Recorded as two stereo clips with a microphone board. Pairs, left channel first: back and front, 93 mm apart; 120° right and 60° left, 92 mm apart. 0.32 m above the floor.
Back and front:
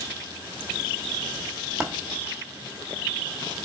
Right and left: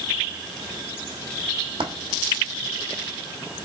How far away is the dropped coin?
About 1.3 m.